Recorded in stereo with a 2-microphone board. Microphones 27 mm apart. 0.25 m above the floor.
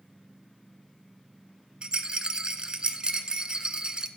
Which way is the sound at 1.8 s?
40° right (ahead or behind).